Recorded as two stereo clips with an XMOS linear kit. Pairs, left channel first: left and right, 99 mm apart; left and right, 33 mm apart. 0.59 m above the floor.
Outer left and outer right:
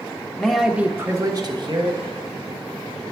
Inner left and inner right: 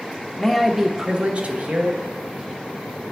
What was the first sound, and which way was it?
A man speaking, 5° left (ahead or behind).